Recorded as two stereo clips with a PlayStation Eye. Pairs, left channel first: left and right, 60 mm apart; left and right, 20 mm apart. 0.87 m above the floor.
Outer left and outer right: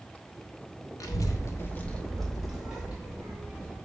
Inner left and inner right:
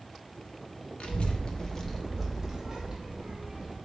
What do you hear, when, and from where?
1.0 s a child speaking: 75° left (ahead or behind), 0.6 m; by 3.8 s 25° right (ahead or behind), 1.5 m